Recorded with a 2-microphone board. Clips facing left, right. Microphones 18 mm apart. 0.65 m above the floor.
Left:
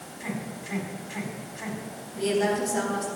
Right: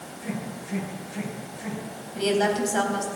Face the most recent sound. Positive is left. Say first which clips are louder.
# right 2 dB
turn(degrees=-25)  # may be behind; listen again after turning